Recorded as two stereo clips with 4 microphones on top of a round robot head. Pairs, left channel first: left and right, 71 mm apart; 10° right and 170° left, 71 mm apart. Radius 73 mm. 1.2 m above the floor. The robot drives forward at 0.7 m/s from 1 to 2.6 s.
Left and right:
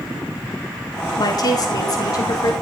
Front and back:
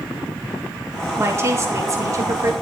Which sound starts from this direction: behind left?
A woman speaking, at 1.2 s.